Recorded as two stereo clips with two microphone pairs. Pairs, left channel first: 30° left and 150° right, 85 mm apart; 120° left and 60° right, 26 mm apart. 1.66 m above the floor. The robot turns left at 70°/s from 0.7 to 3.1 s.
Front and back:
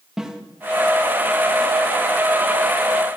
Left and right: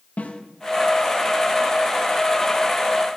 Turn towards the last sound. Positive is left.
turn(degrees=-40)